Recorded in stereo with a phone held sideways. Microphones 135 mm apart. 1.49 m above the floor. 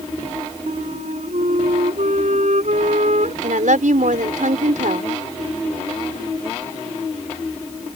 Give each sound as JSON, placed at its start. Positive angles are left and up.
{"t": 0.7, "sound": "a flute", "side_deg": -60}
{"t": 3.4, "sound": "a woman speaking", "side_deg": -75}